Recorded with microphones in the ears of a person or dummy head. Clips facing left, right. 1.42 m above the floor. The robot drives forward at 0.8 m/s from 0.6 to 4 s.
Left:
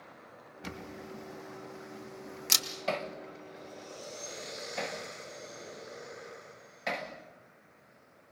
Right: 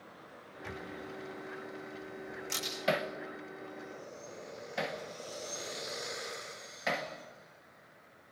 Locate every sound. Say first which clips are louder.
0.6 s a camera shutter: even; 55° left (ahead or behind), 2.5 m; by 2.7 s 85° left, 2 m
2.9 s hammering: right 2 dB; 20° right (ahead or behind), 0.8 m; by 7.1 s 10° right (ahead or behind), 1.7 m